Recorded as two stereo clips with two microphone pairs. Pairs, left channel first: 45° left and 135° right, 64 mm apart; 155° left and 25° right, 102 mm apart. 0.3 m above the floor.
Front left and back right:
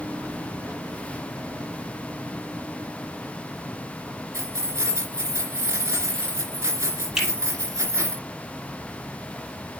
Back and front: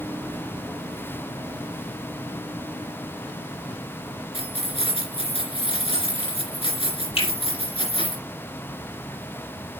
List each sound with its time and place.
4.3 s keys jangling: straight behind, 3 m
7.2 s a finger snap: 145° left, 5.5 m